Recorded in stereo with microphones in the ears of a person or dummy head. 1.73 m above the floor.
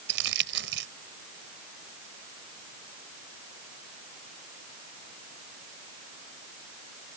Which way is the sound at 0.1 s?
70° right (ahead or behind).